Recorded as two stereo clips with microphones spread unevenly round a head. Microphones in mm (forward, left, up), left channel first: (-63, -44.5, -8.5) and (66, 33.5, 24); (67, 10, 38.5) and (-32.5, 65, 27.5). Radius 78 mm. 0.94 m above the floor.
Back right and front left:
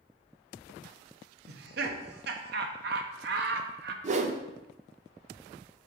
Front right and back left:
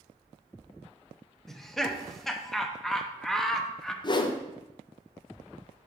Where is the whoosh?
Straight ahead, 0.7 m.